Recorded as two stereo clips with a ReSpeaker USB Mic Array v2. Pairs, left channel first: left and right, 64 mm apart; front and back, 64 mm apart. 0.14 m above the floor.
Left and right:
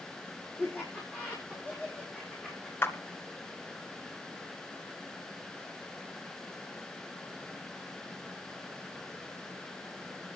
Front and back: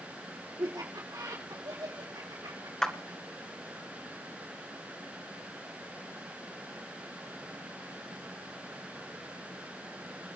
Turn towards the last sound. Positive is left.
turn(degrees=75)